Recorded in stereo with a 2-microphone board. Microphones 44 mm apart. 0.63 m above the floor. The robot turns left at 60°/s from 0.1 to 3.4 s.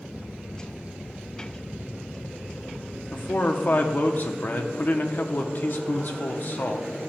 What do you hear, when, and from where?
3.1 s a man speaking: 45° left (ahead or behind), 0.7 m